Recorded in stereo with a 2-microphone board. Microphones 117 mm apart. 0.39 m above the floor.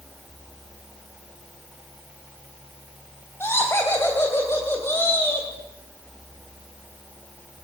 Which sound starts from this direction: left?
Laughter, at 3.4 s.